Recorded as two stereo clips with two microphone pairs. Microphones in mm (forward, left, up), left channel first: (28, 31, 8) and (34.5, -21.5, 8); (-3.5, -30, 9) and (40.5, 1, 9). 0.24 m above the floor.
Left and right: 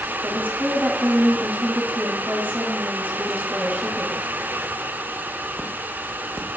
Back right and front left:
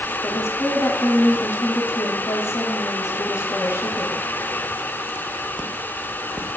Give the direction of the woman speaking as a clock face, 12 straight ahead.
5 o'clock.